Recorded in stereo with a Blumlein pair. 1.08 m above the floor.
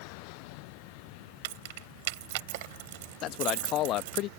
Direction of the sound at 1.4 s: 50° right.